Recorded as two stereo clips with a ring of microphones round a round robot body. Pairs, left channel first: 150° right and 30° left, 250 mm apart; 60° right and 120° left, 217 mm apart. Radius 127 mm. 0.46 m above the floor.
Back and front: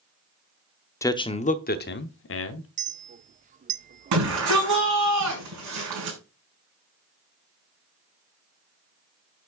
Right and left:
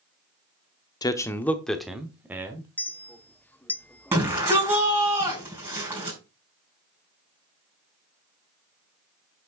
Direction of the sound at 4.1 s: 45° left.